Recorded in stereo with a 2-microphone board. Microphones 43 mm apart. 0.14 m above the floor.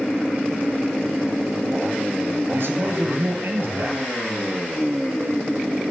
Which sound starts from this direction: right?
A man speaking, at 2.5 s.